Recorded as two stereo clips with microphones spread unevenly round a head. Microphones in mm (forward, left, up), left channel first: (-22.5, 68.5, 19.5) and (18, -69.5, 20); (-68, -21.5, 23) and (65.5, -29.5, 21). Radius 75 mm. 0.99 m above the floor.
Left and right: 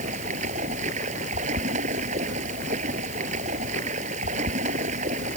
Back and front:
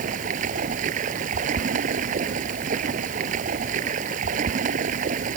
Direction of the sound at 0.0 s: 30° right.